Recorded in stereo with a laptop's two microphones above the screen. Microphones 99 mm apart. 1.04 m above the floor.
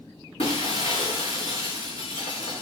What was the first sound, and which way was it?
Breaking glass, 75° left (ahead or behind).